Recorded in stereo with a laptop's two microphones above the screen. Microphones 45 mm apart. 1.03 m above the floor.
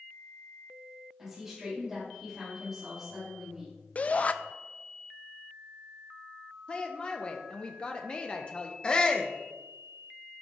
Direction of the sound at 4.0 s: 35° left (ahead or behind).